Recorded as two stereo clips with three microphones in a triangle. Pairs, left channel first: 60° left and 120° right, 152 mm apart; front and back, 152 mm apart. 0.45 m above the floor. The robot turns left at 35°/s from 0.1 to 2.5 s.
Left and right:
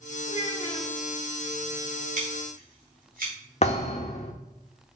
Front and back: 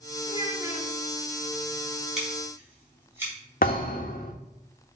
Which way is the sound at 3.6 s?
20° left.